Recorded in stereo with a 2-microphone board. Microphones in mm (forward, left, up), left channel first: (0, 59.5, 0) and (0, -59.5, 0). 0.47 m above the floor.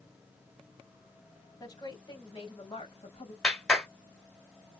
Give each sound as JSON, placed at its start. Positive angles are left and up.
{"t": 1.6, "sound": "a woman speaking", "side_deg": 35, "distance_m": 2.5}
{"t": 3.4, "sound": "a clap", "side_deg": 5, "distance_m": 1.5}